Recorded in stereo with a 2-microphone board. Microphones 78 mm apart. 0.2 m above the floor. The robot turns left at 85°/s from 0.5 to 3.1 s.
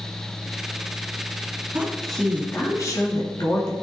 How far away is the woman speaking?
About 2.5 m.